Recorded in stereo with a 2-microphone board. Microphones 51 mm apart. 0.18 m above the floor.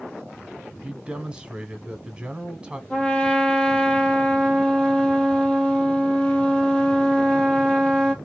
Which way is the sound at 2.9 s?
20° left (ahead or behind).